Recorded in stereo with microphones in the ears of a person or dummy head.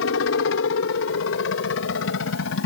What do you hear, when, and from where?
0.0 s a helicopter: 65° left (ahead or behind)